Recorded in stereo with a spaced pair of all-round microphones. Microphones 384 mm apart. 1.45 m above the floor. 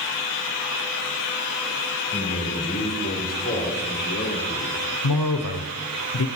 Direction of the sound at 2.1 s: 20° left (ahead or behind).